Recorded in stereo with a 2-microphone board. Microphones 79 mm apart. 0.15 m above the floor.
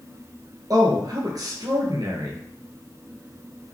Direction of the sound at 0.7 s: 55° right (ahead or behind).